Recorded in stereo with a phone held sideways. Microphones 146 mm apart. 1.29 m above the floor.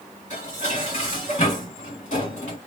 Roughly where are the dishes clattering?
Left.